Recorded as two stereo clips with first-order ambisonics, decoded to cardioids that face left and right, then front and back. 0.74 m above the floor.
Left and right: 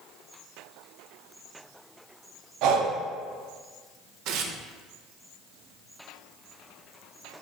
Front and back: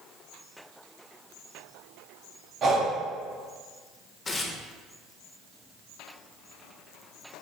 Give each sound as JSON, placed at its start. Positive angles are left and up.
{"t": 2.6, "sound": "breathing", "azimuth_deg": -120, "distance_m": 0.6}
{"t": 4.2, "sound": "tearing paper", "azimuth_deg": -70, "distance_m": 0.5}